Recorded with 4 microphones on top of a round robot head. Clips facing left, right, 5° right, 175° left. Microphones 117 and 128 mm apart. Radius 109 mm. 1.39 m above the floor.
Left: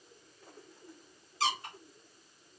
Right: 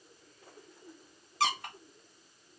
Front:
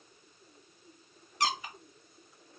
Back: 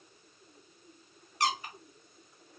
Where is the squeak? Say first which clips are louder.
Right 2 dB, back 1 dB; 35° right, 0.5 m.